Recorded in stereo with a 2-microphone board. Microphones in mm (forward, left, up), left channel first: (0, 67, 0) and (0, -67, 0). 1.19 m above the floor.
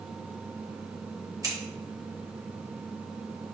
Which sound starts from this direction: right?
Scissors, at 1.4 s.